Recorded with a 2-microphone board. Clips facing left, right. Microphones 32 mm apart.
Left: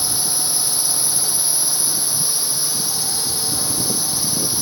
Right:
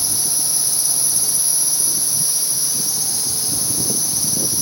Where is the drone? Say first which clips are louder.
Left 1 dB; 30° left (ahead or behind).